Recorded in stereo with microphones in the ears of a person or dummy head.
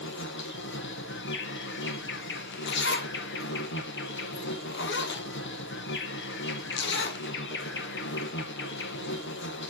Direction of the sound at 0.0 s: 55° left (ahead or behind).